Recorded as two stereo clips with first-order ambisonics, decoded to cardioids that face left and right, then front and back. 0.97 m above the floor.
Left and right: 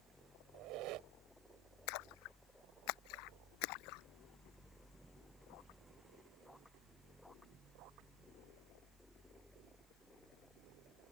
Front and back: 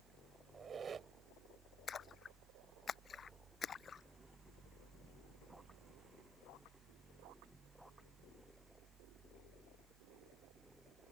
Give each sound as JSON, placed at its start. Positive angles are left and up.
{"t": 0.5, "sound": "a squeak", "azimuth_deg": -115}
{"t": 1.9, "sound": "a splash", "azimuth_deg": 65}